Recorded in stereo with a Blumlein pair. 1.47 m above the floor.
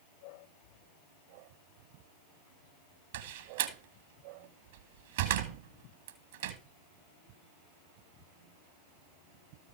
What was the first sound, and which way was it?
A door slam, 60° right.